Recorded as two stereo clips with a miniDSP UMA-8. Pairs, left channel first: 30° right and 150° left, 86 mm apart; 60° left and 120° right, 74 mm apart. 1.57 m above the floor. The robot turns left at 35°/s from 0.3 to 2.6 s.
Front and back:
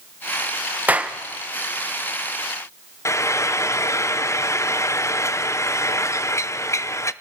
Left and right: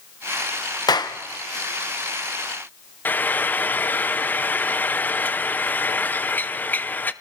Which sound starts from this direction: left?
A clap, at 0.9 s.